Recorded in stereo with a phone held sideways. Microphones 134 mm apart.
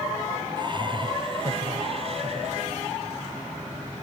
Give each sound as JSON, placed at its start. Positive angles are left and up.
{"t": 0.6, "sound": "laughter", "side_deg": -35}